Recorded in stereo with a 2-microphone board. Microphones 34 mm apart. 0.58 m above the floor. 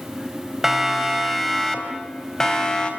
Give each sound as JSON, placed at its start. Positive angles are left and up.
{"t": 0.6, "sound": "a siren", "side_deg": -5, "distance_m": 3.5}